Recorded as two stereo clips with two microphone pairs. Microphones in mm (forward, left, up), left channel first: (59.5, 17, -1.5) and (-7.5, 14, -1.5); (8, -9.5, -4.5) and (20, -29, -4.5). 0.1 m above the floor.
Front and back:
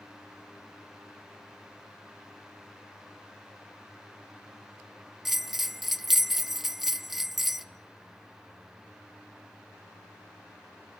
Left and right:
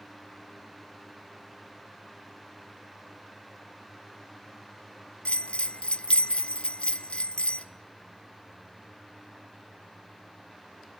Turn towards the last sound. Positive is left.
turn(degrees=90)